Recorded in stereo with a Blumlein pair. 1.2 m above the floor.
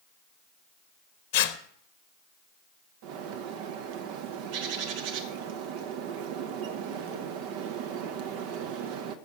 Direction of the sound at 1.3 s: 50° left.